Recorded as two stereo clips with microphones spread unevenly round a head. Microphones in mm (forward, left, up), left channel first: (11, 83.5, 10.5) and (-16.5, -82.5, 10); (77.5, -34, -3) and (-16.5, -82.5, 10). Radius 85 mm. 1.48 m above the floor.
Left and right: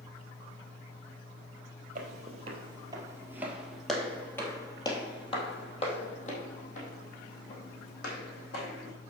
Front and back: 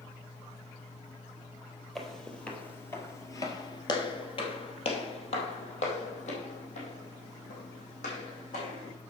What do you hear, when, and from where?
1.9 s footsteps: 65° right, 2.5 m; by 8.9 s 45° left, 5 m